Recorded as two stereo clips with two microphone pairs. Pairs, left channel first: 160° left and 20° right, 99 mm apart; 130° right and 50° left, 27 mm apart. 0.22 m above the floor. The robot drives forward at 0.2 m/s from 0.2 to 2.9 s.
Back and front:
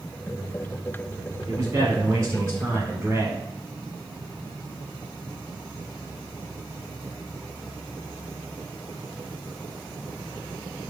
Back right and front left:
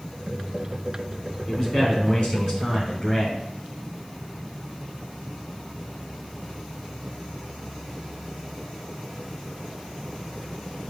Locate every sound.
1.5 s a man speaking: 65° right, 2 m; by 3.4 s 75° right, 2 m